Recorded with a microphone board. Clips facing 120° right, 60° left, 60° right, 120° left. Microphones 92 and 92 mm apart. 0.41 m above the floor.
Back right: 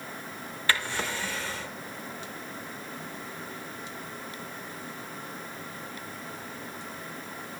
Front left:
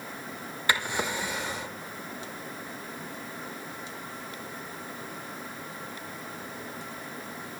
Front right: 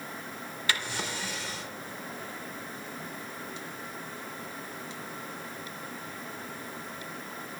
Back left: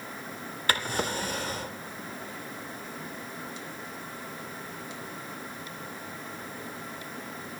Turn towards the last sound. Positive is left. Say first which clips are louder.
# front left 1 dB, back left 5 dB
turn(degrees=125)